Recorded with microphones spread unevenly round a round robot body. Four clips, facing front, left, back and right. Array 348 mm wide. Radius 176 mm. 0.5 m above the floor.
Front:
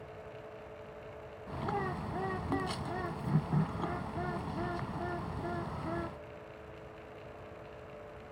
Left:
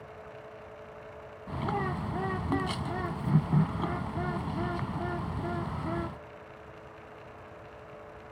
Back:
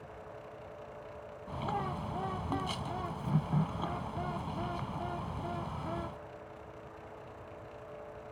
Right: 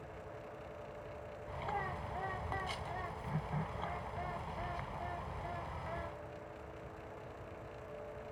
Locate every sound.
1.5 s a bird: 95° left